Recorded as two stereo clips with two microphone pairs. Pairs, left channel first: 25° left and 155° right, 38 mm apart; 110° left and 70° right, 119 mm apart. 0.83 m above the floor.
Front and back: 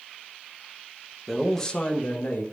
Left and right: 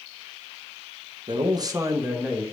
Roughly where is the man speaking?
Right.